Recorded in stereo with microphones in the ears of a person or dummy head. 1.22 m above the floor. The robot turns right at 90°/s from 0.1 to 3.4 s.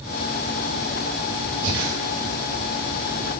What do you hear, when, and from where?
1.6 s breathing: 65° right (ahead or behind), 1.8 m; by 1.9 s 40° right (ahead or behind), 1.8 m